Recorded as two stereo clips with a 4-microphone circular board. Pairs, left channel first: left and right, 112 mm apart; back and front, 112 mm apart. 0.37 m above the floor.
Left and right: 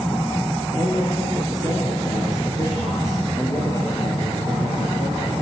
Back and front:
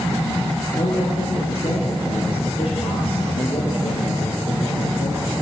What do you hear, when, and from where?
0.8 s a man speaking: 150° left, 6.5 m